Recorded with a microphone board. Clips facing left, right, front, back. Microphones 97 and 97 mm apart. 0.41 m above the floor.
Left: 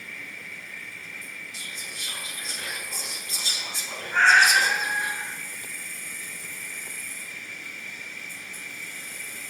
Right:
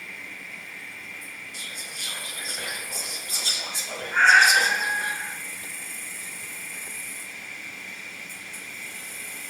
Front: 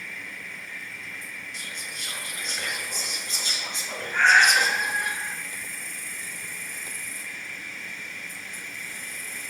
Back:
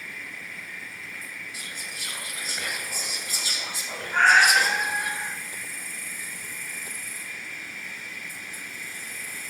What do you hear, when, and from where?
0.0 s an insect: 100° right, 1.5 m
1.5 s whispering: 100° right, 1.9 m
4.1 s a cat meowing: 170° right, 3 m